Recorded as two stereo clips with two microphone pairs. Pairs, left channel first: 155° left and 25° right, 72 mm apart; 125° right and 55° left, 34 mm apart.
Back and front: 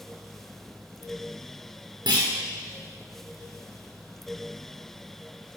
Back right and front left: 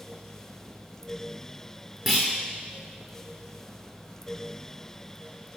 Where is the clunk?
40° right, 4.5 m.